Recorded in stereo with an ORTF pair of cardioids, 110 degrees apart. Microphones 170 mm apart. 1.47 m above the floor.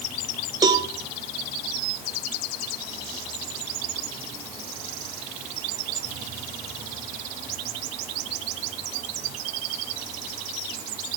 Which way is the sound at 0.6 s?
20° right.